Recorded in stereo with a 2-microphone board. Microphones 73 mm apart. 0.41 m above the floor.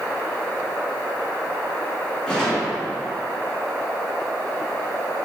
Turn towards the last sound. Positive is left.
turn(degrees=10)  # may be behind; listen again after turning